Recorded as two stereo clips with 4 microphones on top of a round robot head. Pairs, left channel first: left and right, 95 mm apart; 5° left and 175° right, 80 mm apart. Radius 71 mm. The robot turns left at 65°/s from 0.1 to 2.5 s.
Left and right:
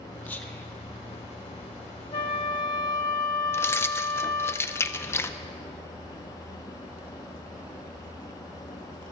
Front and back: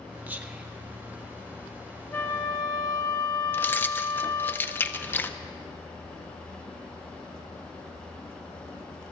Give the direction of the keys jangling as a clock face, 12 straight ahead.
10 o'clock.